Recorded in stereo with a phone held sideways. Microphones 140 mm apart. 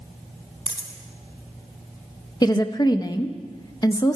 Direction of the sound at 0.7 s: 45° left (ahead or behind).